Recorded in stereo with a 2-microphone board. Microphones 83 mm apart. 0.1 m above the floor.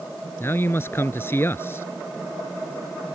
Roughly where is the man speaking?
Left.